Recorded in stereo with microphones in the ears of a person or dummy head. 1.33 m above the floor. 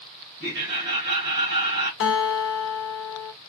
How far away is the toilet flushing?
No toilet flushing in this recording.